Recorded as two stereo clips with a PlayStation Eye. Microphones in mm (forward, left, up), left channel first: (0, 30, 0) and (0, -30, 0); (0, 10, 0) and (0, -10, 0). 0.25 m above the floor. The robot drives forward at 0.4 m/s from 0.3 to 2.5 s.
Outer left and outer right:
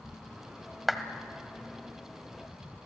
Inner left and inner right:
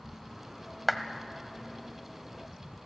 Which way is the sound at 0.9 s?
Centre (ahead or behind).